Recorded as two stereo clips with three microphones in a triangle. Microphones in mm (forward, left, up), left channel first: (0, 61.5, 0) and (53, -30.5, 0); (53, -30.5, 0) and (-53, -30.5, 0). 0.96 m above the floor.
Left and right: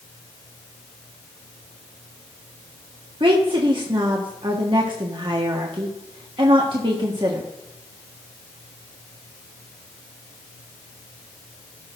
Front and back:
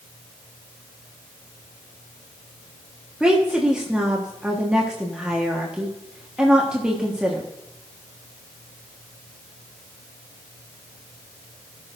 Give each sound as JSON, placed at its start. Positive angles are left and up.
{"t": 3.2, "sound": "a woman speaking", "azimuth_deg": -100, "distance_m": 1.4}